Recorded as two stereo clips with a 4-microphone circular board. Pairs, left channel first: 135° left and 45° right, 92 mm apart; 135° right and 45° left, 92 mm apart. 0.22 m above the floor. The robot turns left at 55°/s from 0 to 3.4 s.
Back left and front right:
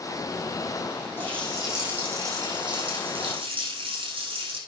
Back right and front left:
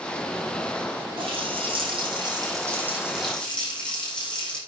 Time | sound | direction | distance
1.2 | a running tap | 70° left | 7.5 m